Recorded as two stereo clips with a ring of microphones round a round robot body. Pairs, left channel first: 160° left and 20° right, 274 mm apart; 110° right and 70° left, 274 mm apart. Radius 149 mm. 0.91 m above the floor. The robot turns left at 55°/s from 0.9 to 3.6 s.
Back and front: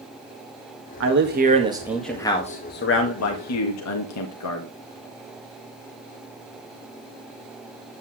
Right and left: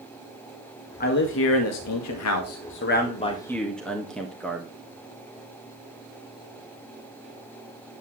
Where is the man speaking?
55° right, 1.7 m; by 4.7 s 160° left, 1.7 m.